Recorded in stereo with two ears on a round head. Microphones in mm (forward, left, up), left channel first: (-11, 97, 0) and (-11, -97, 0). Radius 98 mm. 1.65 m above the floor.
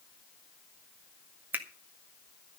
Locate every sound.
1.5 s a finger snap: 10° right (ahead or behind), 1.7 m